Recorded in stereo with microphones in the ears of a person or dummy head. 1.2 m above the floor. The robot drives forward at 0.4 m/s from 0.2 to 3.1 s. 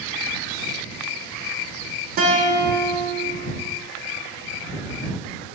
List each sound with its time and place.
2.2 s a guitar: 45° right (ahead or behind), 0.6 m; by 3.1 s 25° right (ahead or behind), 0.9 m